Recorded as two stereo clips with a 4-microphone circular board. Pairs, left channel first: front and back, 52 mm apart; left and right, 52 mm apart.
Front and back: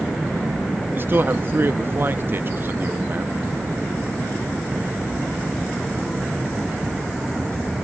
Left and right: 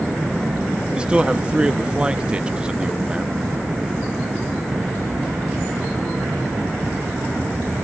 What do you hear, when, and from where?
0.9 s a man speaking: 155° right, 0.6 m